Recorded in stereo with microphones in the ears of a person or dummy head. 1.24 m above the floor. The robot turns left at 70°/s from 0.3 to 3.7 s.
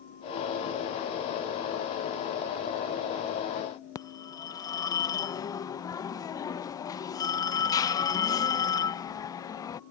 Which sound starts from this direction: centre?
A phone ringing, at 4.0 s.